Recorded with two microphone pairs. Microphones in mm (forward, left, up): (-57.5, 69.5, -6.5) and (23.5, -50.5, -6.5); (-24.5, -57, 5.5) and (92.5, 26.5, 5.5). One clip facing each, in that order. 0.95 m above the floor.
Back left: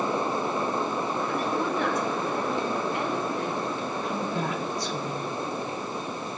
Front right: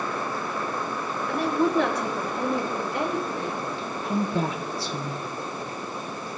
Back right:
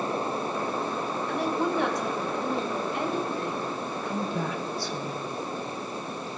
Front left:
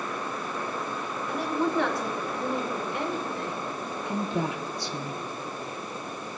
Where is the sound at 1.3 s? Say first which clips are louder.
Front right 9 dB, front left 1 dB; 50° right, 2 m; by 3.7 s 110° right, 4.5 m.